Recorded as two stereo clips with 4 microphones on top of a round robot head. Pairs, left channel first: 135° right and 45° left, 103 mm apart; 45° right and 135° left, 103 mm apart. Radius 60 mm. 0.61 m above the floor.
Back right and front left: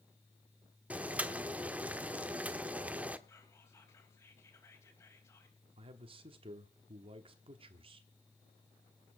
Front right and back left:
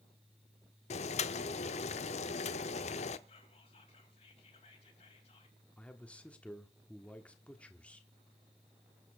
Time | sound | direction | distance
0.9 | boiling | 35° right | 0.8 m
3.3 | whispering | 75° right | 4.5 m
5.8 | a man speaking | 35° left | 1.3 m